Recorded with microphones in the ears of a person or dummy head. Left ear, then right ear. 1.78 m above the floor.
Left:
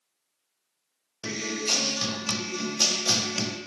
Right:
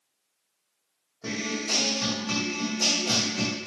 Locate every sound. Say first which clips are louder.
1.2 s a guitar: left 1 dB; 80° left, 1.2 m